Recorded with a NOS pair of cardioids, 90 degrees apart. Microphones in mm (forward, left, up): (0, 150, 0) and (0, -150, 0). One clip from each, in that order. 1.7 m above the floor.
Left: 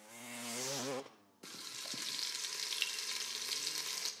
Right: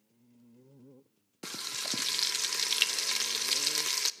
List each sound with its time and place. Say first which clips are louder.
1.4 s frying: right 10 dB; 45° right, 0.7 m